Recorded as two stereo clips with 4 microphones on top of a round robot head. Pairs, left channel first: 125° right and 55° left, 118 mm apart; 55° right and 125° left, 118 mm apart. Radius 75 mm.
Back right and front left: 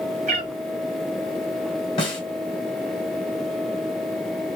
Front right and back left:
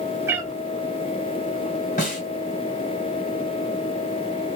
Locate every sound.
0.3 s a cat meowing: 55° left, 0.7 m
2.0 s a snare drum: 80° right, 1.9 m